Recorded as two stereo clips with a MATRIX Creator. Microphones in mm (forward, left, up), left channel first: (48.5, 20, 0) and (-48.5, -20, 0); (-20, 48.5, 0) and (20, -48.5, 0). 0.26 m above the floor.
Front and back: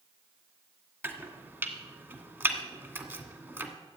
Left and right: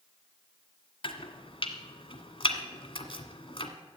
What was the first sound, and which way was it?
Chopping, 135° left.